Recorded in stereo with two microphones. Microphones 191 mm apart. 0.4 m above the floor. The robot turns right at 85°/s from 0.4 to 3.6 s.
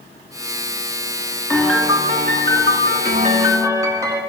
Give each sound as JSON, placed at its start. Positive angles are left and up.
{"t": 1.5, "sound": "a piano", "azimuth_deg": 165, "distance_m": 5.0}